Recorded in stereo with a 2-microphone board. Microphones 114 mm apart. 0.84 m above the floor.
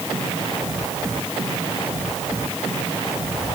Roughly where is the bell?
I don't hear a bell.